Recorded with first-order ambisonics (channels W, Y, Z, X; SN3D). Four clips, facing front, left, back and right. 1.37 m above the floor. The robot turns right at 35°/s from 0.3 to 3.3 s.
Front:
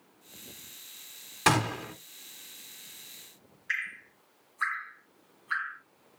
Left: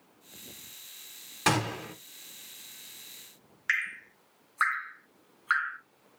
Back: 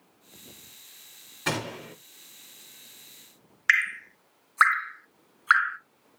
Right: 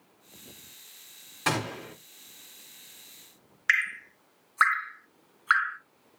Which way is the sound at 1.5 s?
20° left.